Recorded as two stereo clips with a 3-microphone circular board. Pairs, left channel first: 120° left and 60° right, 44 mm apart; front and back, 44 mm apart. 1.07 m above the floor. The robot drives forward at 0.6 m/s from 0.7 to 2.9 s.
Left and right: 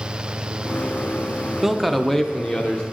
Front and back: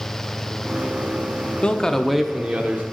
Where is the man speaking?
10° left, 0.7 m; by 2.8 s 170° left, 0.8 m.